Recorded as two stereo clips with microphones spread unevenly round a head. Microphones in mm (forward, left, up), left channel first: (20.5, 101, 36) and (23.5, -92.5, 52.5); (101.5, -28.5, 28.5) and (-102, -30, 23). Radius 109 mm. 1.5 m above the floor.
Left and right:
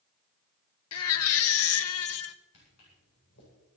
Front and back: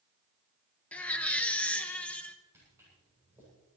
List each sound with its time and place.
0.9 s a baby crying: 85° left, 0.7 m
2.5 s footsteps: 100° left, 8.5 m